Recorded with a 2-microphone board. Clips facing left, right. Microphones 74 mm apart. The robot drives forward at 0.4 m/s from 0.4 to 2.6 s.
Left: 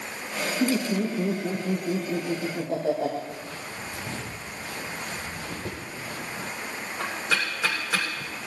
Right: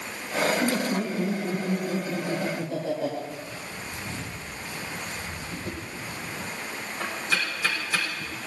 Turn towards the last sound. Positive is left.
turn(degrees=70)  # may be behind; listen again after turning